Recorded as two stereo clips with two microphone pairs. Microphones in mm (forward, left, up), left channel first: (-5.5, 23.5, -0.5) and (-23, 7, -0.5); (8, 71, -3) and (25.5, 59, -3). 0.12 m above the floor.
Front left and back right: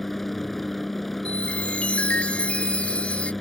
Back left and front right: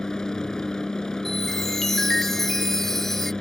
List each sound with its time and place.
0.0 s a helicopter: 120° left
1.2 s a chime: 70° left